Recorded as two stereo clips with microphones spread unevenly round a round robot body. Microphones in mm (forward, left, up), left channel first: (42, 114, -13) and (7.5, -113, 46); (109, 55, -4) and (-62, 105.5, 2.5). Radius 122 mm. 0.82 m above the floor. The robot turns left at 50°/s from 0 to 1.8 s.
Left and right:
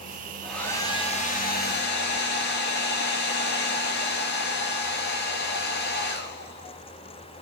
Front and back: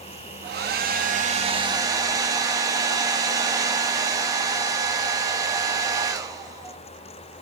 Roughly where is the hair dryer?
Behind.